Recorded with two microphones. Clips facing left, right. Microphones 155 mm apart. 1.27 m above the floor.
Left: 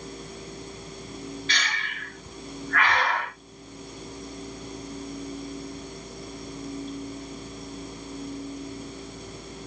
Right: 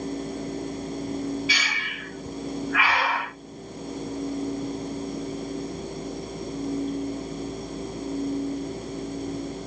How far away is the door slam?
I don't hear a door slam.